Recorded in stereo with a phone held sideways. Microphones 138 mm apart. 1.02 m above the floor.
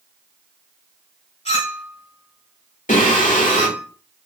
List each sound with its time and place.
1.4 s a clink: 50° left (ahead or behind), 3 m
2.9 s singing: 70° left (ahead or behind), 1.6 m